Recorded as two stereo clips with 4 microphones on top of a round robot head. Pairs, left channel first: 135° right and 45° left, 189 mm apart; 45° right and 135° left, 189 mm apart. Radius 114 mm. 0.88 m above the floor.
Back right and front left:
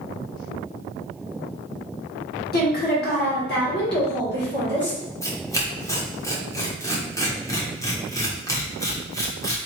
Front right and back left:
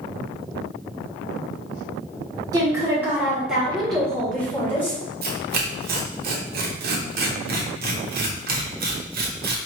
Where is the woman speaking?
160° right, 1.8 m; by 5.0 s 125° right, 2.5 m.